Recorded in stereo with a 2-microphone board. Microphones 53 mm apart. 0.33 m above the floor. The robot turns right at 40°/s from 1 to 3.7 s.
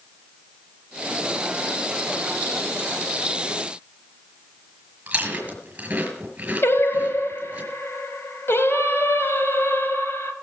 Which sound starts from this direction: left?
Singing, at 6.6 s.